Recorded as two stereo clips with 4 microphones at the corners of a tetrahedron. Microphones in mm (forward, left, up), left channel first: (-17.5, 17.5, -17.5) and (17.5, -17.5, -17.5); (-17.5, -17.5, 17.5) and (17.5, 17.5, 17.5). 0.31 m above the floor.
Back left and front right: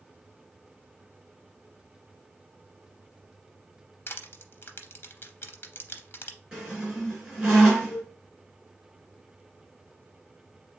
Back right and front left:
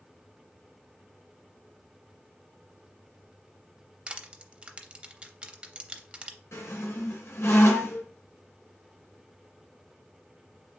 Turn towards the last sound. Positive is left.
turn(degrees=-125)